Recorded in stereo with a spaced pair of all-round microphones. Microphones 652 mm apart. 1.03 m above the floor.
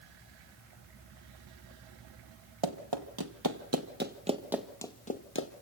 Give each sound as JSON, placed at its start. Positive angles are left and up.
{"t": 2.6, "sound": "running footsteps", "side_deg": -40, "distance_m": 1.6}